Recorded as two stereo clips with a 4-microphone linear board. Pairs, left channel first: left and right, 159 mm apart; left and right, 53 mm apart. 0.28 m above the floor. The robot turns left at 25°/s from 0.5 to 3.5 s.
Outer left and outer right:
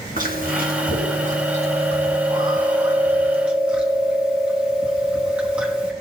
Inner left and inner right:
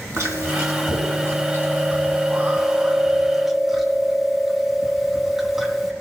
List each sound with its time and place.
0.2 s chewing: 95° right, 3 m; by 5.9 s 170° right, 3 m